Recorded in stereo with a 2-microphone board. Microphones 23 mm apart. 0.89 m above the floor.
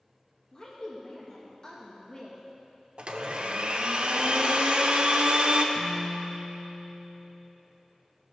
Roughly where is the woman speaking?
Left.